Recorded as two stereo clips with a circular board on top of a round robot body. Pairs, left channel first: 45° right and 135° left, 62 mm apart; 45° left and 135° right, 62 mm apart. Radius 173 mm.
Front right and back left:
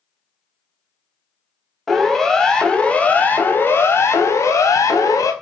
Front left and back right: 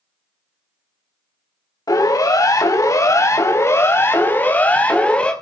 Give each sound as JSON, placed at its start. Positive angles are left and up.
{"t": 1.9, "sound": "a siren", "azimuth_deg": 40, "distance_m": 4.5}